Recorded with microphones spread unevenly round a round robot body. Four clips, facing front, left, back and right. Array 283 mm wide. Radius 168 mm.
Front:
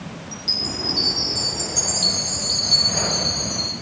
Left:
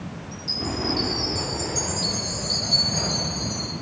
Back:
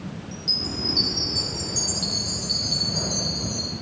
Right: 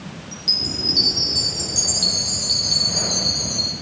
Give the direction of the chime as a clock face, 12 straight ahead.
2 o'clock.